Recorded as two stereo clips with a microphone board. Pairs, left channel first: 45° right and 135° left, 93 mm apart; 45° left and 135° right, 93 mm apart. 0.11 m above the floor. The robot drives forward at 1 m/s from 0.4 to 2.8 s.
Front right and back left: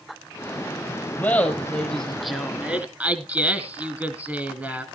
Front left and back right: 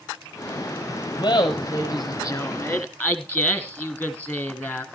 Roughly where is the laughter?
Ahead.